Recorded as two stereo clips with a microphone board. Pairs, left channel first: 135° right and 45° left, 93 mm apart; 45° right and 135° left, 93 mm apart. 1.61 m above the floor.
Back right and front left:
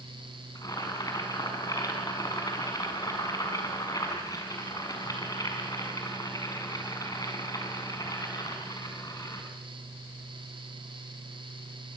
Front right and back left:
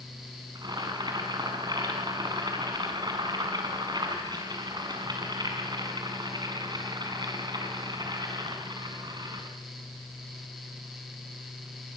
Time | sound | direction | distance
0.6 | boiling | 175° left | 6 m